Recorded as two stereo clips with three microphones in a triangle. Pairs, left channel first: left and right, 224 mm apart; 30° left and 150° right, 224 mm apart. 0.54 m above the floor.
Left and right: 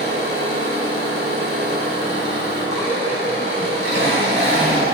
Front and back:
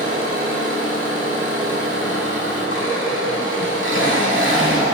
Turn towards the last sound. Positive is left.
turn(degrees=-125)